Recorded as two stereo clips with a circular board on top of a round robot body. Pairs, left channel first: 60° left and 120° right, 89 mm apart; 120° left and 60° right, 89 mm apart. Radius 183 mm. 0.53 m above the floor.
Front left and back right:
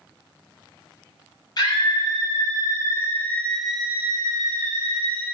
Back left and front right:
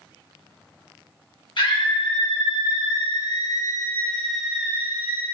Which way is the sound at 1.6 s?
100° left.